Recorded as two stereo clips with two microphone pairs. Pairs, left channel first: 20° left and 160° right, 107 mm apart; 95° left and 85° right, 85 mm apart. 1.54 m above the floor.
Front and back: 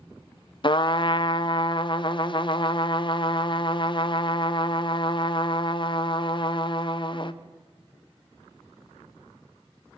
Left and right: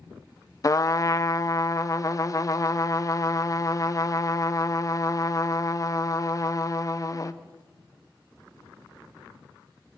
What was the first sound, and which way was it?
A trumpet, 50° left.